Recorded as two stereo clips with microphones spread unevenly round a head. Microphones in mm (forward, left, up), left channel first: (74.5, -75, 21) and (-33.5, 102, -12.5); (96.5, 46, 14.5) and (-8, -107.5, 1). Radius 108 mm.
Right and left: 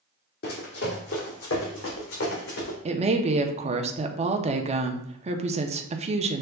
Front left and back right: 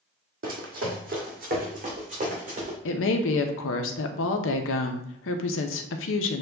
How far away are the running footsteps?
About 1.9 m.